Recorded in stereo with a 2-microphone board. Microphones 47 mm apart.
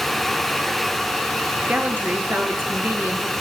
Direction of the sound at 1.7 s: 40° right (ahead or behind).